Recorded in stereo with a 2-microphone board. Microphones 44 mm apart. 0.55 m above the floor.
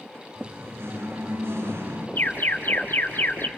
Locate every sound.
0.3 s singing: 70° right (ahead or behind), 7.5 m
2.2 s an alarm: 50° left (ahead or behind), 3.5 m